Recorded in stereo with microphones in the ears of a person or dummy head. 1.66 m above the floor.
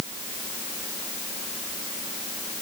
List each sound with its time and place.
Only background noise.